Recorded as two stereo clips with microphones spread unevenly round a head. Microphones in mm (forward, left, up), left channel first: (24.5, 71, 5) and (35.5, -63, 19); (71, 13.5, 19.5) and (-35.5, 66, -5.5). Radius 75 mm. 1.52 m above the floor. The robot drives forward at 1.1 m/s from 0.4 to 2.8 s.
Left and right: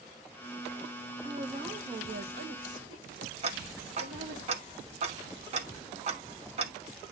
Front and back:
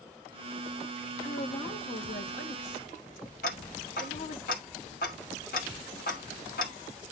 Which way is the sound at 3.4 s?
45° right.